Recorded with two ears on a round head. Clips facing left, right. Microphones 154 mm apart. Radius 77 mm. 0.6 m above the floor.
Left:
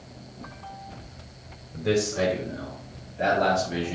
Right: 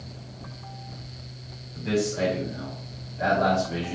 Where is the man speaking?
70° left (ahead or behind), 1.9 m; by 4.0 s centre (ahead or behind), 0.9 m.